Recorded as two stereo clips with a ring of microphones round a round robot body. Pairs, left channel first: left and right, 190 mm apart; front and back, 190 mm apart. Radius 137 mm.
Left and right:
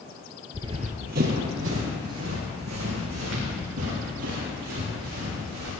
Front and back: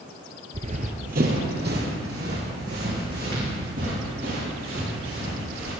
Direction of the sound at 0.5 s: 155° right.